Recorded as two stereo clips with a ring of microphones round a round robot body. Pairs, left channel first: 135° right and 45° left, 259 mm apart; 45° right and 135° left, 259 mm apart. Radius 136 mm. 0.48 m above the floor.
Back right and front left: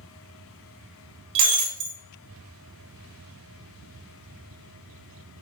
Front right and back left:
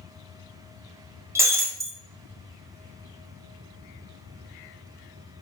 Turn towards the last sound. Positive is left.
turn(degrees=55)